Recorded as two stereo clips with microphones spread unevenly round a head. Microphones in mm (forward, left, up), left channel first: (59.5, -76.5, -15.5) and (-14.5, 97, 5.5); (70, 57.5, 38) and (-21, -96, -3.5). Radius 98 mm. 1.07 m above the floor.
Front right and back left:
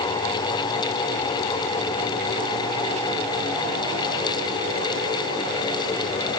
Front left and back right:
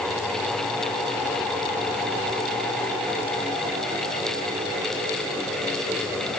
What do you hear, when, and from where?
Only background noise.